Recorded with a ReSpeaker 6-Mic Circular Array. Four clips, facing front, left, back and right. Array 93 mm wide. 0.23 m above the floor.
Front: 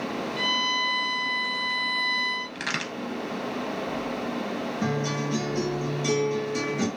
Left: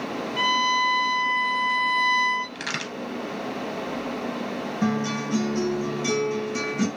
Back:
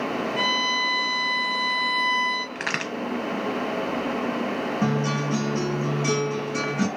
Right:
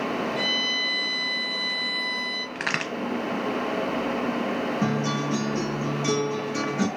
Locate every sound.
0.4 s a violin: 130° left, 1.6 m
2.5 s a crack: 130° right, 0.5 m
4.8 s a guitar: 160° right, 2.0 m